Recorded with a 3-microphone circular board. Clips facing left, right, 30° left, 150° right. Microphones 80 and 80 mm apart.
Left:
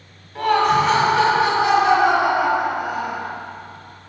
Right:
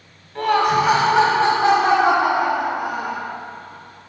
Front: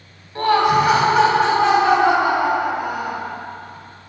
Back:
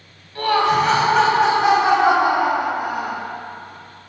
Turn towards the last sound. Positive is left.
turn(degrees=-100)